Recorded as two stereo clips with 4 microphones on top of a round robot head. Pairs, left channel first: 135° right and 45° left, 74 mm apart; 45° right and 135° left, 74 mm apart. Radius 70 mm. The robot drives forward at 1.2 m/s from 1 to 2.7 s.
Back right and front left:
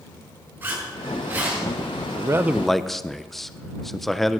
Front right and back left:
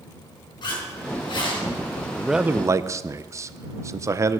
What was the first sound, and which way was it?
A zipper, 20° right.